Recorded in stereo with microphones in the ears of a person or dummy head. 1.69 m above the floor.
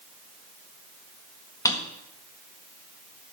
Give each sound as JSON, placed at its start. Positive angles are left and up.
{"t": 1.6, "sound": "a drawer", "side_deg": 15, "distance_m": 1.6}